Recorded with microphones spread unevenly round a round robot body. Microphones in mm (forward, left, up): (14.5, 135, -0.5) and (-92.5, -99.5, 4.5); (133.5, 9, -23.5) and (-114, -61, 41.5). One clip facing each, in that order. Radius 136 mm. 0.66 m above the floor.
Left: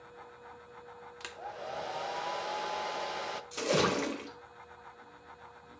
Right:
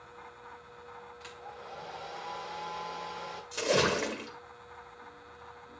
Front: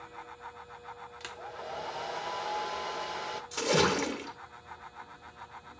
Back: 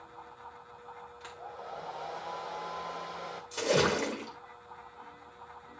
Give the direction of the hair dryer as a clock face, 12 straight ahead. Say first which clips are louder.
Left 7 dB, front 3 dB; 10 o'clock.